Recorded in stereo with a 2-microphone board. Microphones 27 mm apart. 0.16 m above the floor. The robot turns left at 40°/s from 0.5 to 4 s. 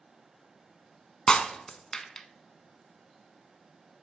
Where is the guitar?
I don't hear a guitar.